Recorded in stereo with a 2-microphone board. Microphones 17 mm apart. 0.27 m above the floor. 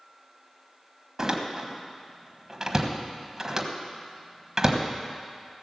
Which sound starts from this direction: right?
A door slam, at 1.2 s.